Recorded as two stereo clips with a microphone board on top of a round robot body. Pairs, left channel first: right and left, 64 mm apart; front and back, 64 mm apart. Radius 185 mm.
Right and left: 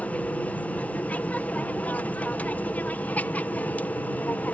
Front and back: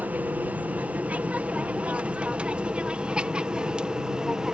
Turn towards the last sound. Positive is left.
turn(degrees=-115)